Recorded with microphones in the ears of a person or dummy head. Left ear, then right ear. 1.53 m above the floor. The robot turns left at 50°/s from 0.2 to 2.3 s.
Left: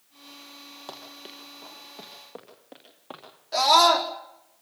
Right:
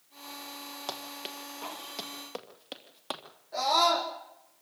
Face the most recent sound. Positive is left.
turn(degrees=70)  # may be behind; listen again after turning